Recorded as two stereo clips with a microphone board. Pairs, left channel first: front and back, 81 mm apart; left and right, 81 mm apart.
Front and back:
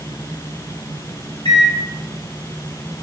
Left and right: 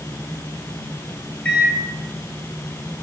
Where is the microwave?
15° left, 0.9 m.